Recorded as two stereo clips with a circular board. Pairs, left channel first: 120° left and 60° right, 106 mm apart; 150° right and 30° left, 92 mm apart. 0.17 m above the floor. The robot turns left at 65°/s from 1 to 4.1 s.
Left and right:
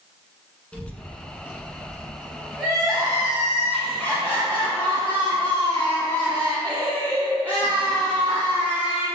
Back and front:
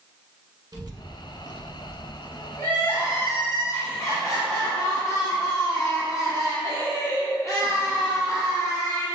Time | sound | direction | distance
0.7 | a child speaking | 45° left | 1.1 m
2.6 | crying | 75° right | 1.8 m